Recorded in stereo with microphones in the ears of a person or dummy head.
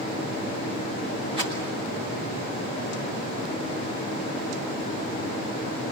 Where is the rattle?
30° right (ahead or behind), 6.5 m.